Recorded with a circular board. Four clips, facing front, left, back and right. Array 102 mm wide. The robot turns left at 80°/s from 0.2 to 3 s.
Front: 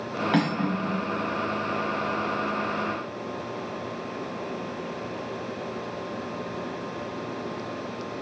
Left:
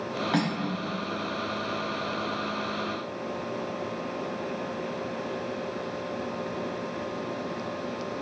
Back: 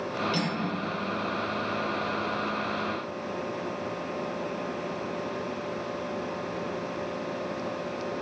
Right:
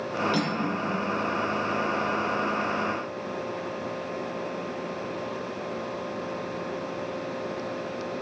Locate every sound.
0.3 s cutlery clinking: 25° left, 2 m; by 1.1 s 35° right, 2 m